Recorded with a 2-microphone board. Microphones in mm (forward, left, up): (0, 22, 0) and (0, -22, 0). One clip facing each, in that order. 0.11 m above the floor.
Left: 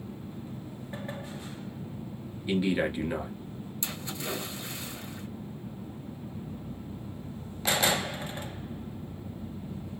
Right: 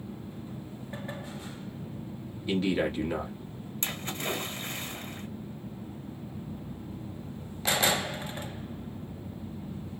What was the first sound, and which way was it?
A man speaking, 10° left (ahead or behind).